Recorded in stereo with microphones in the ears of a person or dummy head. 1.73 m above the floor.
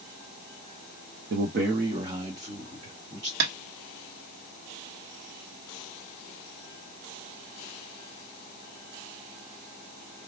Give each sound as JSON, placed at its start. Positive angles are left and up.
{"t": 1.3, "sound": "a man speaking", "side_deg": -65, "distance_m": 0.8}
{"t": 3.4, "sound": "tapping", "side_deg": -60, "distance_m": 1.1}